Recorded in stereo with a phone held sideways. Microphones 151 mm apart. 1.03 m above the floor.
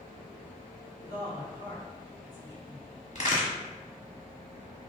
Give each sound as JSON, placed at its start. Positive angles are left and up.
{"t": 1.0, "sound": "a woman speaking", "side_deg": -45, "distance_m": 1.5}
{"t": 3.1, "sound": "a crack", "side_deg": 50, "distance_m": 1.2}